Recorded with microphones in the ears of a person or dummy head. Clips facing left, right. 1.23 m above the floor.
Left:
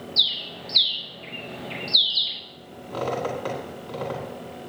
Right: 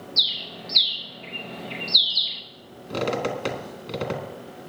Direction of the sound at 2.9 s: 30° right (ahead or behind).